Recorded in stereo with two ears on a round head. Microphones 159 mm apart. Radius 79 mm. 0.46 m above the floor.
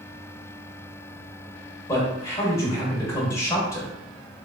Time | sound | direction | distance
1.9 | a man speaking | 15° left (ahead or behind) | 1.6 m